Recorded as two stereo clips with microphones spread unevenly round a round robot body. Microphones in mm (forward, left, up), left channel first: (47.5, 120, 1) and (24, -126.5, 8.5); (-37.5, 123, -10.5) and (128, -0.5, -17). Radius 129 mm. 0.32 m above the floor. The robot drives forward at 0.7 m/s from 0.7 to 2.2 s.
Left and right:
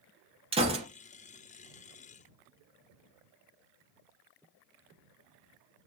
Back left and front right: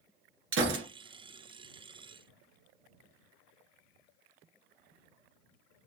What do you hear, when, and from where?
0.5 s a gunshot: 25° right, 1.6 m; by 0.8 s 30° right, 1.5 m